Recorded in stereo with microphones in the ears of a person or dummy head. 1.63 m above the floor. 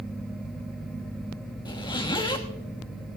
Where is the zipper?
20° left (ahead or behind), 1.0 m.